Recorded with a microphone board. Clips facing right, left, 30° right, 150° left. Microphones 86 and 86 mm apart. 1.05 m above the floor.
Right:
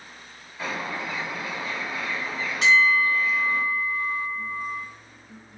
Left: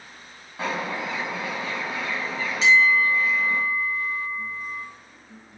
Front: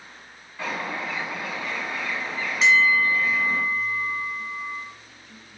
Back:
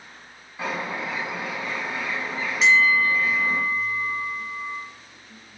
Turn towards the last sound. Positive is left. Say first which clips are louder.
# left 1 dB, even
turn(degrees=-120)